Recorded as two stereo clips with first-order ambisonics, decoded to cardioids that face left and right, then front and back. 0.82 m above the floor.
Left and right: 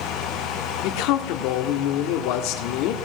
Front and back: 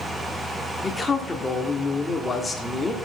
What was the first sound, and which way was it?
A man speaking, 80° left.